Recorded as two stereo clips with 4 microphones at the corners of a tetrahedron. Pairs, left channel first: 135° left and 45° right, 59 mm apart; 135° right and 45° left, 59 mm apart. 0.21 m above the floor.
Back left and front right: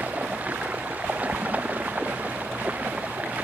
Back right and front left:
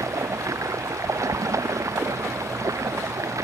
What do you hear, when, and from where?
0.0 s running water: 20° left